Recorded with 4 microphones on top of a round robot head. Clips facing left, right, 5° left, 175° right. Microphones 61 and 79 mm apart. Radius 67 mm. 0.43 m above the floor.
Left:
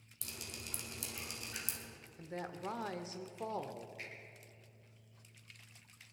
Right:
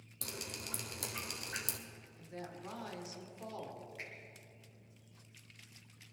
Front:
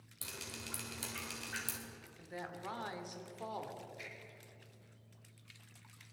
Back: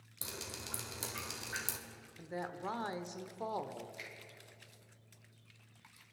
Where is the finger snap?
155° right, 4 m.